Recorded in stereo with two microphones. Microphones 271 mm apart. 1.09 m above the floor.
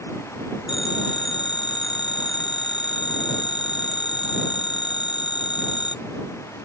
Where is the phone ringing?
90° left.